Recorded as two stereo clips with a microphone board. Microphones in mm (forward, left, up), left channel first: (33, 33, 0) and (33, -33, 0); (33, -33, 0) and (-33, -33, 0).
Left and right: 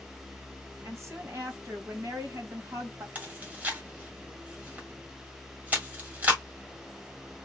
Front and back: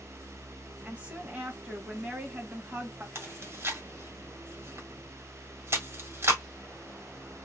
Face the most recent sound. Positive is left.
turn(degrees=-150)